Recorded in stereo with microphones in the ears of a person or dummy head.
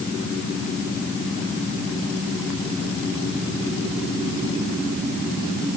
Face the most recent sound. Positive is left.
No sound to turn to.